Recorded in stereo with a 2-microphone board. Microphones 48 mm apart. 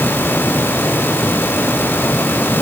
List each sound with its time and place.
Only background noise.